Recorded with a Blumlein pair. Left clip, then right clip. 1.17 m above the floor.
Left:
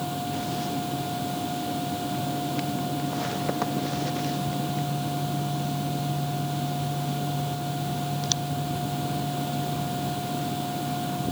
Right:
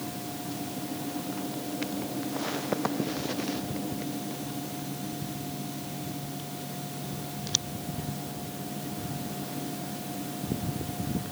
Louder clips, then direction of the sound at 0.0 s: Left 7 dB; 30° left.